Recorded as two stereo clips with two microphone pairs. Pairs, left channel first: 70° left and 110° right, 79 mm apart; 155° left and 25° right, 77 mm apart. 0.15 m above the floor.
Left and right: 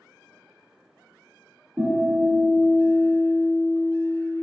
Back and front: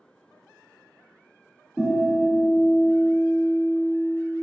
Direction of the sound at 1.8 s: 170° right.